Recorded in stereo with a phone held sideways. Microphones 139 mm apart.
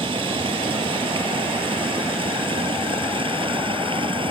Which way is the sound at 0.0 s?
40° right (ahead or behind).